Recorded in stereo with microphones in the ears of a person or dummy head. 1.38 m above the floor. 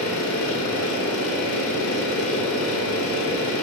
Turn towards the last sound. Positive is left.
turn(degrees=75)  # may be behind; listen again after turning